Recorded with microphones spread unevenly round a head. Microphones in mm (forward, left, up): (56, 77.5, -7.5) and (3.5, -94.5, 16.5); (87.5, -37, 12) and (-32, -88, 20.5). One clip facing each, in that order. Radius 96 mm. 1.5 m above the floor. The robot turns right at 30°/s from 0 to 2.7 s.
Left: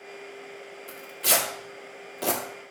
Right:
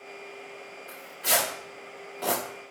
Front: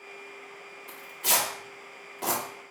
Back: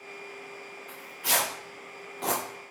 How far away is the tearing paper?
About 1.2 m.